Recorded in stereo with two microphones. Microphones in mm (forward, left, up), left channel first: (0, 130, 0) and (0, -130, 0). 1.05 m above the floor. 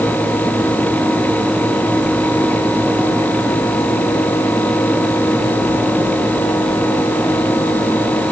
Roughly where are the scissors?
No scissors in this recording.